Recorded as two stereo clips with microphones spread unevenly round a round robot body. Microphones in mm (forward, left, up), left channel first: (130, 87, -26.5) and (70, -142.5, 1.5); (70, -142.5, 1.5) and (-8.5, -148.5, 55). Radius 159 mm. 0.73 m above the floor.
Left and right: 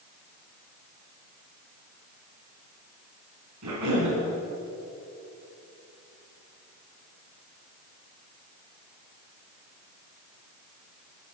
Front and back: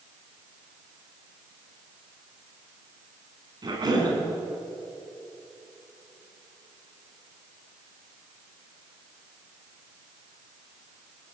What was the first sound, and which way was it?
A cough, 140° right.